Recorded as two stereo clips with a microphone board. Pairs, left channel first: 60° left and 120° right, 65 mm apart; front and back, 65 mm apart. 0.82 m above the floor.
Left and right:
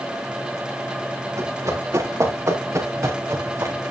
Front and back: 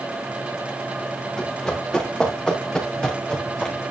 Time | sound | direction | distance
1.4 | running footsteps | 80° right | 7 m